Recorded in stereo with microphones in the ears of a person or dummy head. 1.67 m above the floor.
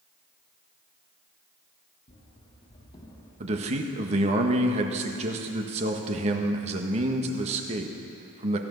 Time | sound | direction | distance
2.1 | running footsteps | 35° left (ahead or behind) | 4.5 m
3.4 | a man speaking | 30° right (ahead or behind) | 1.5 m